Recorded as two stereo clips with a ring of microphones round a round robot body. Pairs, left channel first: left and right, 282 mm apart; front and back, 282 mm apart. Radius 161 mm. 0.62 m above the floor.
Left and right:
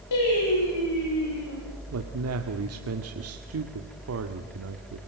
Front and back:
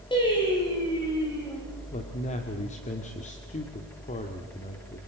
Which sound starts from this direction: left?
Singing, at 0.1 s.